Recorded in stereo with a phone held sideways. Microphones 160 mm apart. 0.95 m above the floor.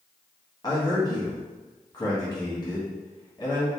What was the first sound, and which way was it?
A man speaking, 25° left (ahead or behind).